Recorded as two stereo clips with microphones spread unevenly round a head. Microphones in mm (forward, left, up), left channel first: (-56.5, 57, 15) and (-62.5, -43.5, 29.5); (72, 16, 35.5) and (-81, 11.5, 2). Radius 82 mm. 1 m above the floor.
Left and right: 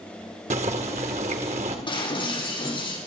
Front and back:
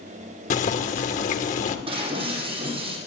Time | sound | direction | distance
0.5 | boiling | 45° right | 1.7 m
1.9 | breaking glass | 125° left | 7.5 m